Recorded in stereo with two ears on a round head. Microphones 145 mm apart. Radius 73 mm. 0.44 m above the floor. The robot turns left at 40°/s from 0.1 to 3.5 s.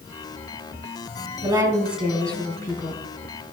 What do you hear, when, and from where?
1.4 s a woman speaking: 155° right, 3.5 m; by 3.0 s 145° left, 3.5 m